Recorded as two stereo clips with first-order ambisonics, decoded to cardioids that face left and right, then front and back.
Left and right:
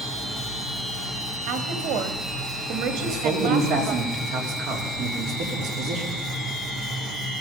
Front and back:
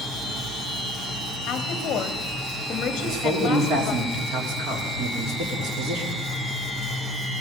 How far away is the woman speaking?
About 1.9 m.